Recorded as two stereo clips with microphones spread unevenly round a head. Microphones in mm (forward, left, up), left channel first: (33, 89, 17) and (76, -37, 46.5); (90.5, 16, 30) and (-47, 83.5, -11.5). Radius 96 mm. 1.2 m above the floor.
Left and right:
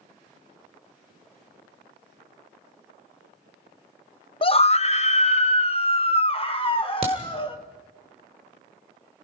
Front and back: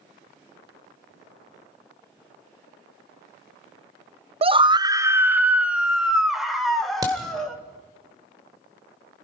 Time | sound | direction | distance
4.4 | a scream | 130° left | 0.6 m
7.0 | a crack | 130° right | 2 m